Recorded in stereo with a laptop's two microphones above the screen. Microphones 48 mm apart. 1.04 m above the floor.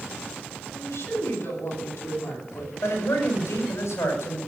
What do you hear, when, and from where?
0.8 s a woman speaking: 70° left (ahead or behind), 8.5 m
2.8 s a man speaking: 80° left, 6.5 m